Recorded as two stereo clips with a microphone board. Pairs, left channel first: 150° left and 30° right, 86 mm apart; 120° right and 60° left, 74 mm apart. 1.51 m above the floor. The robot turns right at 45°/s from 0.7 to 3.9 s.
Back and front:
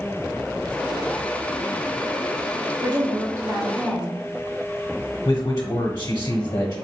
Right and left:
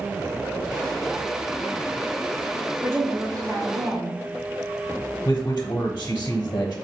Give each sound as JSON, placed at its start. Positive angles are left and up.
{"t": 2.8, "sound": "a woman speaking", "azimuth_deg": 0, "distance_m": 1.0}
{"t": 5.2, "sound": "a man speaking", "azimuth_deg": -165, "distance_m": 0.8}